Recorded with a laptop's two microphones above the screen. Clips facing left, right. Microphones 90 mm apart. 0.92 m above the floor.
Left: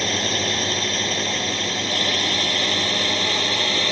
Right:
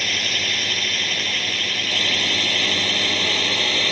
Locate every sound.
0.0 s a drone: 30° left (ahead or behind); by 3.9 s 20° left (ahead or behind)